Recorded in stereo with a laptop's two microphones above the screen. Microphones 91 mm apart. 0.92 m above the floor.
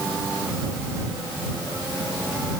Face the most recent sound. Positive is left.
No sound to turn to.